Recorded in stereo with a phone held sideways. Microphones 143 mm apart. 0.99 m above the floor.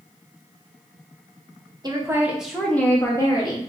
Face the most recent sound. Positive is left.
turn(degrees=35)  # may be behind; listen again after turning